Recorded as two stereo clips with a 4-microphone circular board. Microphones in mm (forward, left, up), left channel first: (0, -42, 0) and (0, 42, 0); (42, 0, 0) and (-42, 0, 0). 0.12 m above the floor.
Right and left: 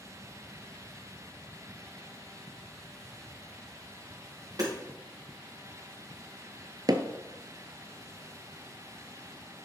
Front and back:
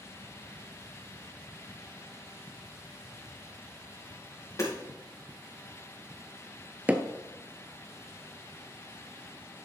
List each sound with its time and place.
4.6 s hammering: 45° left, 3.5 m
6.9 s hammering: 115° left, 0.8 m